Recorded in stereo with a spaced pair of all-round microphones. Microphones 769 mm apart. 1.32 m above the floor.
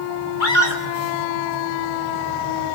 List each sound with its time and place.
0.4 s a scream: 70° left (ahead or behind), 4 m